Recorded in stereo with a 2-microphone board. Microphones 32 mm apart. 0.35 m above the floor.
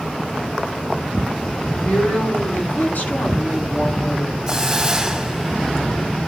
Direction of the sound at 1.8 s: 70° left (ahead or behind).